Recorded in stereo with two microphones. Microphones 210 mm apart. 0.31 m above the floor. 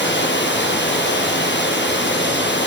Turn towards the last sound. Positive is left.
turn(degrees=60)  # may be behind; listen again after turning